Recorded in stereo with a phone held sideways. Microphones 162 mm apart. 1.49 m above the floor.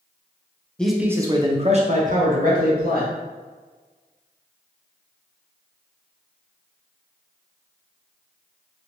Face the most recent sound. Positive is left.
turn(degrees=-65)  # may be behind; listen again after turning